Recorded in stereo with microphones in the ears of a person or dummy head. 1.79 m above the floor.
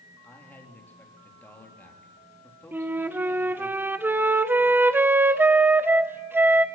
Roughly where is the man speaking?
Centre.